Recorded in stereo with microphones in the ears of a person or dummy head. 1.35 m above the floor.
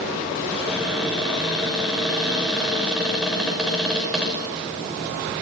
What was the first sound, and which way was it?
A cupboard door, centre (ahead or behind).